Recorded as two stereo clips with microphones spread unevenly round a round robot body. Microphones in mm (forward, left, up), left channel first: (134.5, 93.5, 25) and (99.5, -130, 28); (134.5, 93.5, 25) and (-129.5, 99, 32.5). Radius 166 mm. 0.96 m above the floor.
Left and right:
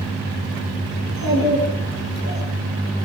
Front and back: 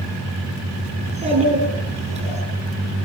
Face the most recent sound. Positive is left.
turn(degrees=115)